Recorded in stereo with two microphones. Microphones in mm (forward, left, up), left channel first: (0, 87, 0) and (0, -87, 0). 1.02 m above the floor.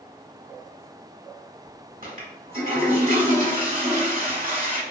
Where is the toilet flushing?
55° right (ahead or behind), 1.2 m.